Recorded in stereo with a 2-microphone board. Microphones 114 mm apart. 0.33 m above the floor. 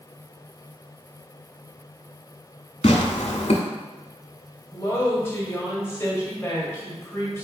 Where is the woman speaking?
20° left (ahead or behind), 1.4 m.